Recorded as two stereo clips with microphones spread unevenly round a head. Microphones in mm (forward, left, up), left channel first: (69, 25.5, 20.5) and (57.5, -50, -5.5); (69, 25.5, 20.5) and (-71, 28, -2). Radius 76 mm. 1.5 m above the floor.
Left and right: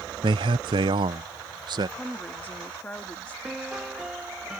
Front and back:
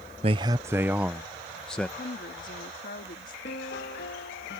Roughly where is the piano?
Ahead.